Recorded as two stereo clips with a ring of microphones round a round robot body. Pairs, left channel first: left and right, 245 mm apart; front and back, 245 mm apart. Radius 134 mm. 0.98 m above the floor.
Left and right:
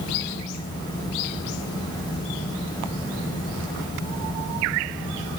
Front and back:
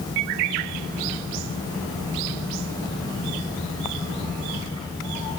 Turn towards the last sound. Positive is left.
No sound to turn to.